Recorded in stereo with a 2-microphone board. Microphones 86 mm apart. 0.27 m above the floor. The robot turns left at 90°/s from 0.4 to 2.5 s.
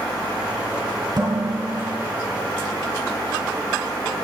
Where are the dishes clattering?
50° right, 2.5 m; by 2.0 s 130° right, 2.5 m.